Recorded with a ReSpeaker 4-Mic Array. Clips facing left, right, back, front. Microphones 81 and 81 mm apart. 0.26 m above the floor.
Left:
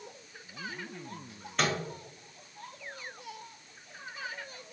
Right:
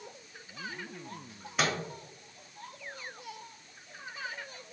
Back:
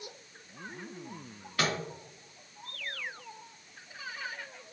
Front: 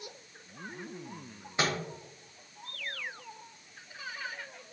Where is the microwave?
15° right, 0.8 m.